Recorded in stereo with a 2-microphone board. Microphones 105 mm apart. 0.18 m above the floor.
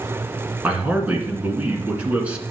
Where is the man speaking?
10° right (ahead or behind), 2 m.